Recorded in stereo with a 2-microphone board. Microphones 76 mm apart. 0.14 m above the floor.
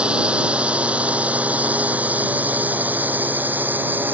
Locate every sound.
0.0 s a drone: 15° right (ahead or behind); by 4.2 s 25° right (ahead or behind)